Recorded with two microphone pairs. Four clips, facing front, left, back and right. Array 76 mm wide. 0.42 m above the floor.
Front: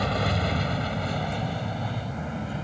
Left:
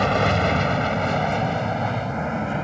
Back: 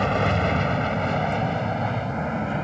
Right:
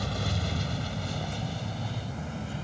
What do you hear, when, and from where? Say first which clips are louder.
0.0 s an aircraft: left 14 dB, back 5 dB; 110° left; by 2.6 s 125° left